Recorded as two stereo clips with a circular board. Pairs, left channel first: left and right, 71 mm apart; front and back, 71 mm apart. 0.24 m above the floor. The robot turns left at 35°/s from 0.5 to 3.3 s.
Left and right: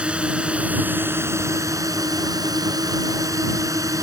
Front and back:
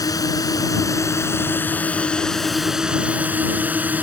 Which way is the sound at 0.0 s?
20° right.